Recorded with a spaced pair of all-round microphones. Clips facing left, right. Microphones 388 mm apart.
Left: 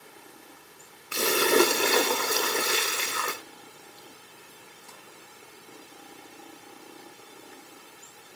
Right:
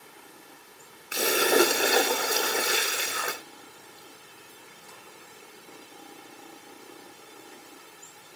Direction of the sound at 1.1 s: 10° left (ahead or behind).